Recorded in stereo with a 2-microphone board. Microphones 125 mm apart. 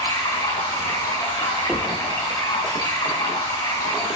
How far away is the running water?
About 5.5 m.